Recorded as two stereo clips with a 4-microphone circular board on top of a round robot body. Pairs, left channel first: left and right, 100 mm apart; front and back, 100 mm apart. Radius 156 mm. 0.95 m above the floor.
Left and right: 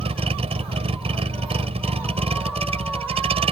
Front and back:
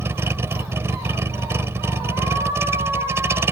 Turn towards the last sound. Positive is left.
turn(degrees=-115)